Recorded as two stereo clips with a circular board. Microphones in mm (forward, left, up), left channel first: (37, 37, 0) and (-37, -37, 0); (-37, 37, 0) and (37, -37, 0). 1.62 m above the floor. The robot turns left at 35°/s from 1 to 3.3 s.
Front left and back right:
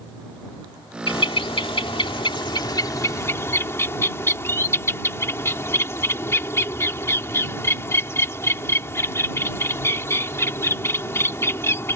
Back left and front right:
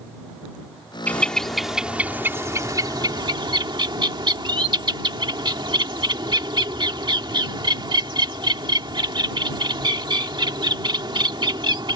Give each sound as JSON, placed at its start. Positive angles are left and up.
{"t": 1.1, "sound": "a bird", "azimuth_deg": 65}